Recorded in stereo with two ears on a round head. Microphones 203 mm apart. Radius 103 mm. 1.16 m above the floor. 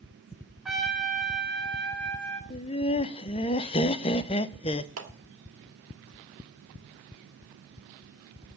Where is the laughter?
25° left (ahead or behind), 0.6 m.